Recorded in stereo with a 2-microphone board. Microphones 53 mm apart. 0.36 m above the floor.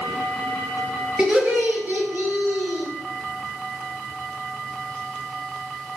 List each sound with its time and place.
1.2 s laughter: 15° right (ahead or behind), 1.4 m; by 2.9 s 35° right (ahead or behind), 2 m